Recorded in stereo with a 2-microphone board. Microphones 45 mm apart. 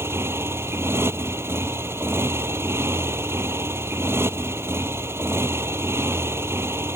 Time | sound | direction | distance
0.0 | a motorcycle | 75° right (ahead or behind) | ?